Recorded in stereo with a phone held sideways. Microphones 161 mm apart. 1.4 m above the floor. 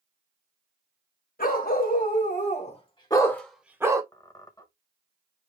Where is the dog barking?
65° left (ahead or behind), 2.5 m; by 4.0 s 20° right (ahead or behind), 1.4 m.